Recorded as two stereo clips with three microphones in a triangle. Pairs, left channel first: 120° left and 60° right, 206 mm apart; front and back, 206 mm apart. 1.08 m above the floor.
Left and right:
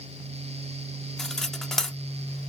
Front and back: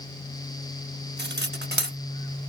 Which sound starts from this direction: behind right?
Cutlery clinking, at 1.2 s.